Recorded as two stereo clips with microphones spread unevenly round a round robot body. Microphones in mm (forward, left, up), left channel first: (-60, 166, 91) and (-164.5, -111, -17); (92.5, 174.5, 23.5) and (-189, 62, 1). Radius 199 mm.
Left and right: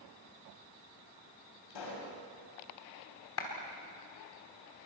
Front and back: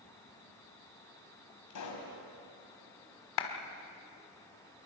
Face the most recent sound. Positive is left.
turn(degrees=10)